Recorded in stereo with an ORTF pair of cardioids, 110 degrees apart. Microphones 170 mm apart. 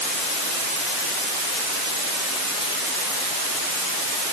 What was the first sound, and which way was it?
Only background noise.